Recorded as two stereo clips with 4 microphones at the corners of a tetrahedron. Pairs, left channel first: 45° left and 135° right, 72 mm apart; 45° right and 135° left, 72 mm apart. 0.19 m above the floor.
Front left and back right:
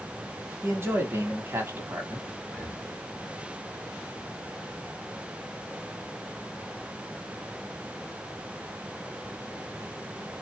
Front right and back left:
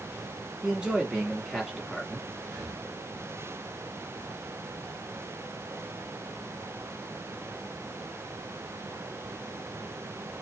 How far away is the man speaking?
About 1.6 m.